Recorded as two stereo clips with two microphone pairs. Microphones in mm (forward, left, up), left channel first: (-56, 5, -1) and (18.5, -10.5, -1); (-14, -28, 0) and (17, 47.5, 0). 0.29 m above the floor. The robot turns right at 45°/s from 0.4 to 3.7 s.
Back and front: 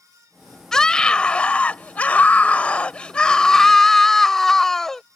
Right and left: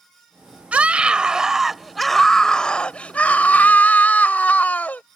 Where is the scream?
105° left; by 5.0 s 120° right.